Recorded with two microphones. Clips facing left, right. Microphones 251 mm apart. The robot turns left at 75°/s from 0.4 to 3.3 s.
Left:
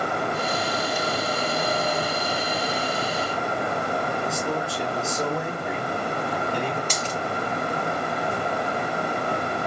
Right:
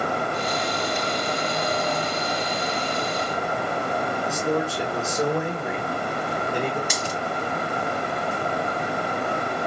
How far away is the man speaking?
About 2.5 m.